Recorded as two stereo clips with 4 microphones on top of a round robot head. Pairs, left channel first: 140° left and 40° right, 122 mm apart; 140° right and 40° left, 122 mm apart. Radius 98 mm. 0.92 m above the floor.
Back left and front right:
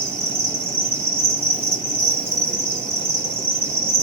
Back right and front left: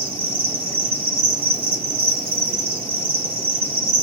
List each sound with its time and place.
0.0 s an insect: 25° left, 2.5 m